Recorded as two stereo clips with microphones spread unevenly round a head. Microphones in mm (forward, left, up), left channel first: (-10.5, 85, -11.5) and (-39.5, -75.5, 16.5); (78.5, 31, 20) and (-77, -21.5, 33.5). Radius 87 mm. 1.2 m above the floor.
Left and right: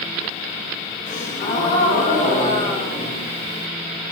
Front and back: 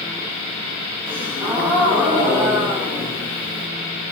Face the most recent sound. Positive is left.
turn(degrees=125)